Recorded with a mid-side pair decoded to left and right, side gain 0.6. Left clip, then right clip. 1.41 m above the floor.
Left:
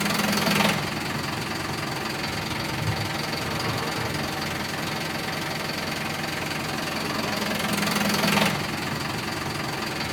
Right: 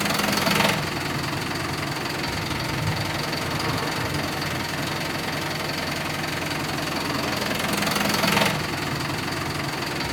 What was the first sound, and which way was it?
An engine running, 10° right.